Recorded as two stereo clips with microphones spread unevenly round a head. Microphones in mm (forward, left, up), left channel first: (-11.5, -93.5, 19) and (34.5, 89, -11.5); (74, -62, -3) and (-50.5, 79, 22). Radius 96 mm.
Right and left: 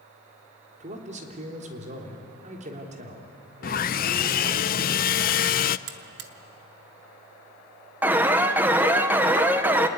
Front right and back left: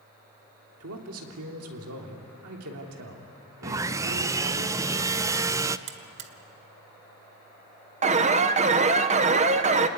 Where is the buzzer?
115° left, 1.6 m.